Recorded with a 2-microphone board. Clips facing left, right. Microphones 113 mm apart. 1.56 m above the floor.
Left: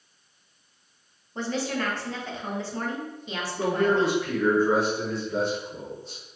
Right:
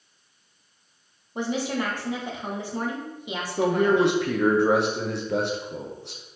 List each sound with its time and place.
1.4 s a woman speaking: 15° right (ahead or behind), 1.1 m
3.6 s a man speaking: 70° right (ahead or behind), 0.9 m